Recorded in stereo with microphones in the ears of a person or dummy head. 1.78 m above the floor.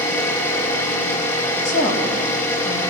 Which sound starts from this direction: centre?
An engine running, at 0.0 s.